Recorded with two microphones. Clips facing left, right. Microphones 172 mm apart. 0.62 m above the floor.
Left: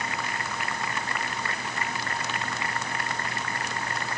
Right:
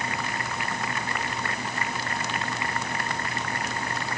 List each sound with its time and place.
Only background noise.